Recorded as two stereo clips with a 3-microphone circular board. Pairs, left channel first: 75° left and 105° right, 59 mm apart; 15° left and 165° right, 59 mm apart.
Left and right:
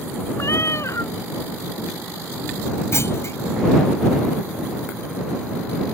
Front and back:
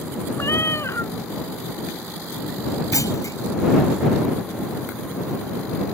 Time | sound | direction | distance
0.4 | a cat meowing | 50° left | ?
2.9 | a clunk | 35° left | ?